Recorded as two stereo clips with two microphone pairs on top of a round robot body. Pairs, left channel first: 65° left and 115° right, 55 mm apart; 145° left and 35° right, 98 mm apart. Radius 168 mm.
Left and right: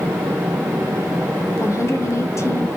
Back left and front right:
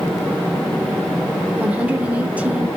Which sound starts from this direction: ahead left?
A woman speaking, at 1.6 s.